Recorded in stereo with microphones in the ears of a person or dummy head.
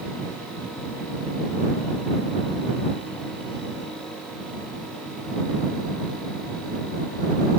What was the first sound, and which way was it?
Only background noise.